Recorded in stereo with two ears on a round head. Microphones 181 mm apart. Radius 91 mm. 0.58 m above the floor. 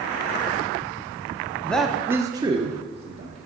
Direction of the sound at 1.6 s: 10° left (ahead or behind).